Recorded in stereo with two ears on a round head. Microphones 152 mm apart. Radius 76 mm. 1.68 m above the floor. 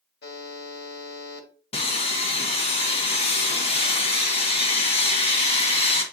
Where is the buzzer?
75° left (ahead or behind), 1.9 m.